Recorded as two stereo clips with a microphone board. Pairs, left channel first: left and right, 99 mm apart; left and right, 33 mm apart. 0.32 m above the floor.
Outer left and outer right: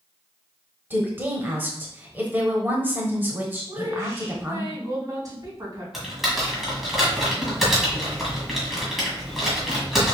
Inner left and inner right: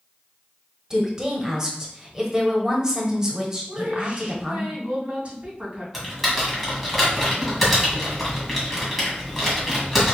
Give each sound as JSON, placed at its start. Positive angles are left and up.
{"t": 0.9, "sound": "a woman speaking", "side_deg": -20, "distance_m": 1.1}
{"t": 3.7, "sound": "a woman speaking", "side_deg": -40, "distance_m": 2.5}
{"t": 5.9, "sound": "typing on a keyboard", "side_deg": 0, "distance_m": 1.8}